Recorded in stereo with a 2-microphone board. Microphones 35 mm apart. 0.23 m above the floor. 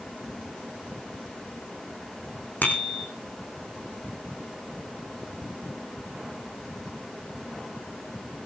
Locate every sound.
2.6 s a bicycle bell: 55° left (ahead or behind), 9.5 m